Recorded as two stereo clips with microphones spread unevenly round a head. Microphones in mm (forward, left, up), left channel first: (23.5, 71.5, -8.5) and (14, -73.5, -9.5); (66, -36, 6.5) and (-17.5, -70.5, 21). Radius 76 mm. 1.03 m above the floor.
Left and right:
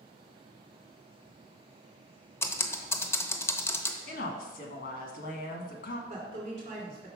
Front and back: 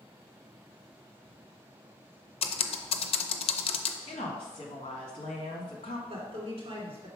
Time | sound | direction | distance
2.4 | typing on a keyboard | 10° left | 0.6 m
4.1 | a woman speaking | 70° left | 1.3 m
6.1 | a woman speaking | 140° right | 2.5 m